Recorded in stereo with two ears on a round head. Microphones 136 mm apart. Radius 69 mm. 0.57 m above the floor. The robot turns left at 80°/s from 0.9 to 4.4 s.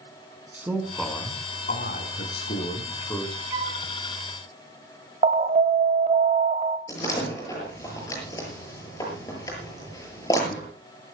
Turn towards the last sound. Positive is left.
turn(degrees=20)  # may be behind; listen again after turning